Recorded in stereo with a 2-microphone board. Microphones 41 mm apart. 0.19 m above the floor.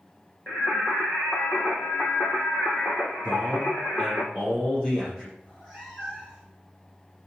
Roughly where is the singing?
Left.